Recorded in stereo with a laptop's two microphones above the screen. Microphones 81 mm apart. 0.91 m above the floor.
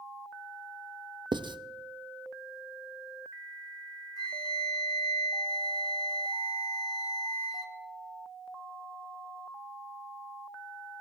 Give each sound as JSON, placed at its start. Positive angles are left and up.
{"t": 1.3, "sound": "writing", "side_deg": -70, "distance_m": 0.6}
{"t": 4.2, "sound": "a flute", "side_deg": 60, "distance_m": 1.6}